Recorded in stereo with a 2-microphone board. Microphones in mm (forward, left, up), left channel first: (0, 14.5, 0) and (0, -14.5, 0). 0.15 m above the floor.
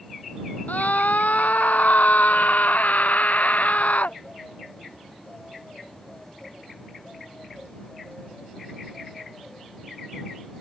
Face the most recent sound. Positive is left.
turn(degrees=60)  # may be behind; listen again after turning